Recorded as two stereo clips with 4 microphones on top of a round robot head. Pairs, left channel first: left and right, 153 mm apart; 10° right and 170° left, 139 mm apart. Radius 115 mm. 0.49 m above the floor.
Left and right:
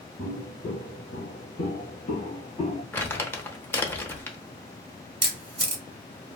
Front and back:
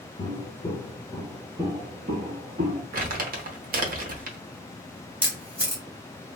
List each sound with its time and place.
0.2 s footsteps: 30° left, 0.9 m; by 2.8 s 135° left, 1.3 m
2.9 s crumpling: 165° left, 0.9 m
5.2 s a camera shutter: 115° right, 1.0 m